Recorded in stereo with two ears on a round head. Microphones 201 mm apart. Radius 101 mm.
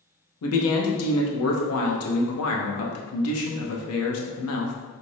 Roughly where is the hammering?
No hammering in this recording.